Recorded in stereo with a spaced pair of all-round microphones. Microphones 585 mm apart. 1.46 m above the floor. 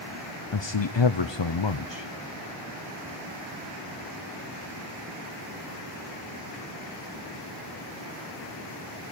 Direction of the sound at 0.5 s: 50° left (ahead or behind).